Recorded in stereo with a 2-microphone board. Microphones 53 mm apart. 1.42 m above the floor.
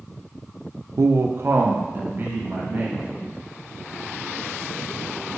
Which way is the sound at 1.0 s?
70° right (ahead or behind).